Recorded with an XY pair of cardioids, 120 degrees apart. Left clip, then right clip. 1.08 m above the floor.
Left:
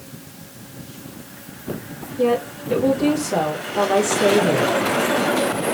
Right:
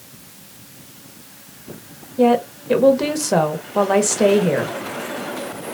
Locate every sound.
2.2 s a woman speaking: 60° right, 1.3 m